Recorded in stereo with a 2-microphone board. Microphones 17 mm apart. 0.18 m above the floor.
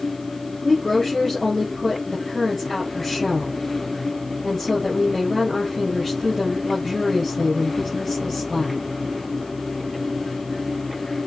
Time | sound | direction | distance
0.6 | a woman speaking | 10° left (ahead or behind) | 3.5 m